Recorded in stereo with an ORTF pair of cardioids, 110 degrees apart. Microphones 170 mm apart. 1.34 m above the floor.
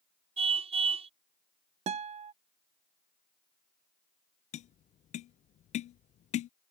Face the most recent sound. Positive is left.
turn(degrees=45)